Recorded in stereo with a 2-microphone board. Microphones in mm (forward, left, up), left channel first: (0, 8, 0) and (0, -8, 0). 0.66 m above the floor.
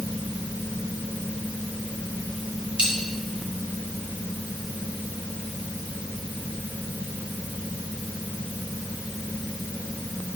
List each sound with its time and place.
2.8 s a dropped coin: 80° right, 2.5 m